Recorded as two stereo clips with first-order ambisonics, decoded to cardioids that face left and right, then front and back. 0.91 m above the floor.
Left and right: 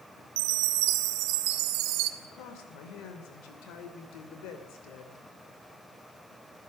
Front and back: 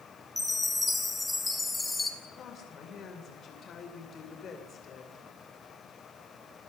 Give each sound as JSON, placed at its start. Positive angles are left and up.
{"t": 0.4, "sound": "a chime", "azimuth_deg": -85, "distance_m": 1.7}
{"t": 2.2, "sound": "a woman speaking", "azimuth_deg": 60, "distance_m": 2.5}